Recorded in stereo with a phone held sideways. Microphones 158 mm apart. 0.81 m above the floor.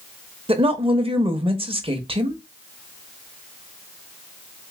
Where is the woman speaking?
35° right (ahead or behind), 0.9 m.